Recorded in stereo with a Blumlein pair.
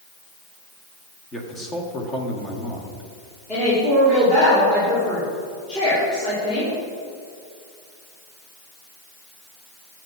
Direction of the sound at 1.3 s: 20° left.